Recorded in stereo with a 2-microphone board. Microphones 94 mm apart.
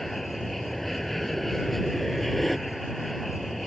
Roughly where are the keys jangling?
I don't hear keys jangling.